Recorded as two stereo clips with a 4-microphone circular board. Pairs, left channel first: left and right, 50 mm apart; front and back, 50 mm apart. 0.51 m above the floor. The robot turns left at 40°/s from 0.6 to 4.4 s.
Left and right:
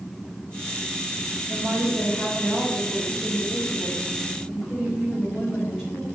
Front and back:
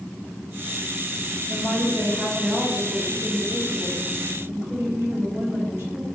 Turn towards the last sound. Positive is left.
turn(degrees=-170)